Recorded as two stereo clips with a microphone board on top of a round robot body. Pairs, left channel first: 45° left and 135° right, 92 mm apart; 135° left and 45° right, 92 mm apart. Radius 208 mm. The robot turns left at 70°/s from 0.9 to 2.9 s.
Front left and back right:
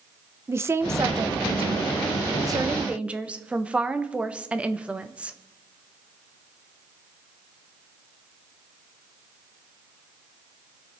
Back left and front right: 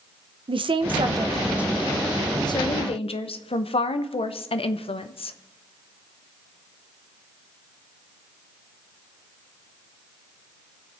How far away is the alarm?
No alarm in this recording.